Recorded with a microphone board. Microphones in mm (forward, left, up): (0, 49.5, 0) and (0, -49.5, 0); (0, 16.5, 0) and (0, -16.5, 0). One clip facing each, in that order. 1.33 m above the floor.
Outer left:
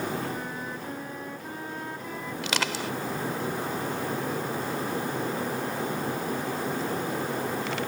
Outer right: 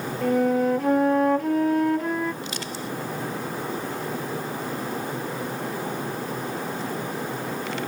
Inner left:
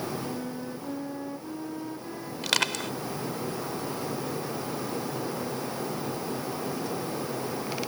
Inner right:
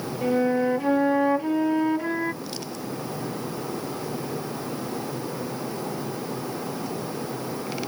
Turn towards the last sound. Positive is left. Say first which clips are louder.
# outer left 2 dB, inner left 6 dB
turn(degrees=85)